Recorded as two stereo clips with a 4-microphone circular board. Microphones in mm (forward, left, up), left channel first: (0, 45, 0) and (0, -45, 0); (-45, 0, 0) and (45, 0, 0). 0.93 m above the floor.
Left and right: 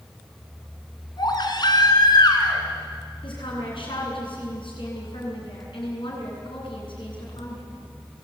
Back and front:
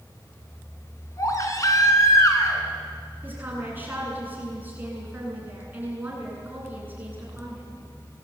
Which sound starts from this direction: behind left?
A baby crying, at 1.2 s.